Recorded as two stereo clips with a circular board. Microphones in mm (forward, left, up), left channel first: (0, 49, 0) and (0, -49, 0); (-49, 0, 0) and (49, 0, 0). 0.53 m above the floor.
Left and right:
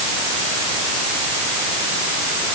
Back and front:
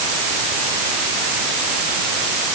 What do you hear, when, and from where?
Only background noise.